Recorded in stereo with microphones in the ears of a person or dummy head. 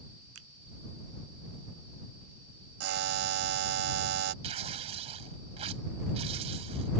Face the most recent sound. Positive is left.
turn(degrees=-35)  # may be behind; listen again after turning